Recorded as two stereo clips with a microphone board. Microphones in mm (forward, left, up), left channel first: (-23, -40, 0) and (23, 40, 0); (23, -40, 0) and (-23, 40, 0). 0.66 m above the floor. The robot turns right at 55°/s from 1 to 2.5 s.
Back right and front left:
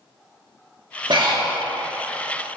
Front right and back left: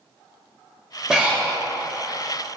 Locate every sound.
1.1 s breathing: 35° left, 0.6 m; by 1.6 s 65° left, 0.6 m